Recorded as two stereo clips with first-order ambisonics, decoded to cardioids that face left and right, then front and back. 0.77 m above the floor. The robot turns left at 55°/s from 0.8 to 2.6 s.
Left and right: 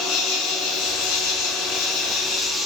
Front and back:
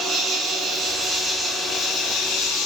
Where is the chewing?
I don't hear chewing.